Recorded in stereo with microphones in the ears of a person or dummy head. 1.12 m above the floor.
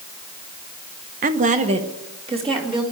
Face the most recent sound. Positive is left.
turn(degrees=-20)  # may be behind; listen again after turning